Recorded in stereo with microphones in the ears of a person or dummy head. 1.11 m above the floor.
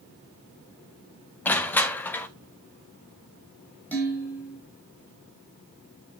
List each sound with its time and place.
1.4 s crushing: 10° left (ahead or behind), 0.7 m
3.9 s dishes clattering: 10° left (ahead or behind), 4.5 m